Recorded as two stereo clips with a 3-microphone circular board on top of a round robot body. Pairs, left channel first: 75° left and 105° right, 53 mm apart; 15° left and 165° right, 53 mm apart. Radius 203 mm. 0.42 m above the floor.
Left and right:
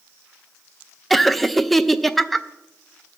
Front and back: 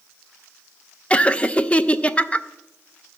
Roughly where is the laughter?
Ahead.